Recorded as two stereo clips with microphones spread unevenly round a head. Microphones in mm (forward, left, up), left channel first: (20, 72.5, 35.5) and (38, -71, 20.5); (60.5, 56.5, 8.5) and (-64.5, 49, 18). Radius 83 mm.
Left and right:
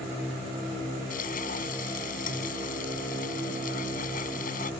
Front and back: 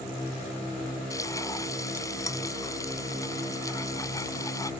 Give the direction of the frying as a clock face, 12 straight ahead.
10 o'clock.